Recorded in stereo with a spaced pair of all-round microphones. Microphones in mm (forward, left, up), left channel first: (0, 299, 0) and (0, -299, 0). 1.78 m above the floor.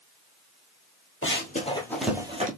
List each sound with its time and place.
1.2 s running footsteps: 20° left (ahead or behind), 1.9 m; by 2.5 s 15° right (ahead or behind), 1.8 m